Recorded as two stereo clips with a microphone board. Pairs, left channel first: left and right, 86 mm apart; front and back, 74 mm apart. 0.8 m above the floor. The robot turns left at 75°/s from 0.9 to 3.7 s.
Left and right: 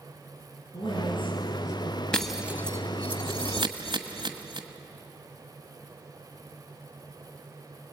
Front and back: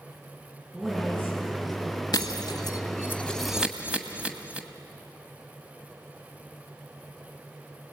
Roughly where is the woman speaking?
Left.